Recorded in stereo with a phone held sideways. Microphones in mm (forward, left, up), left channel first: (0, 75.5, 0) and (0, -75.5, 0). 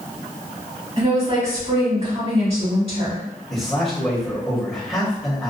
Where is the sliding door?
I don't hear a sliding door.